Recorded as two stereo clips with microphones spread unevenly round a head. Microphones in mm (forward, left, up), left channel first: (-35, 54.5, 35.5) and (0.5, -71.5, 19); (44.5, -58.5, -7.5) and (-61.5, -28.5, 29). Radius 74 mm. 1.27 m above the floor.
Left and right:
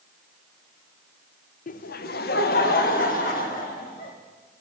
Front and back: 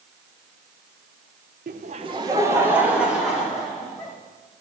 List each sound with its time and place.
1.7 s laughter: 130° left, 0.7 m; by 4.1 s 70° left, 3 m